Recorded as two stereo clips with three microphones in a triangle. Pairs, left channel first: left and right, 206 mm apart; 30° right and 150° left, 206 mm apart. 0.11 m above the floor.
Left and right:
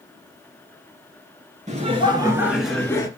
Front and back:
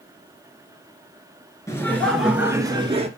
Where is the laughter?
95° right, 1.9 m; by 3.1 s 145° left, 1.8 m.